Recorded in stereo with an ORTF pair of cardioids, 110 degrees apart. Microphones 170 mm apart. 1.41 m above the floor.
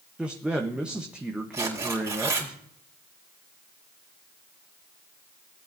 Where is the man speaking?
5° right, 1.1 m.